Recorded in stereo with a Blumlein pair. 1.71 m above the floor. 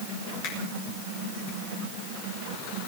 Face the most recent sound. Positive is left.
turn(degrees=40)